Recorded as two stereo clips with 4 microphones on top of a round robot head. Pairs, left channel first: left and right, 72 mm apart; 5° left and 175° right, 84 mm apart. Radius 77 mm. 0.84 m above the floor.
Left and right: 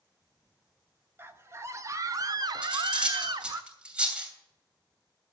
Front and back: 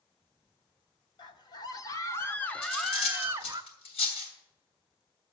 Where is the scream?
35° right, 1.6 m; by 3.6 s 125° right, 1.0 m.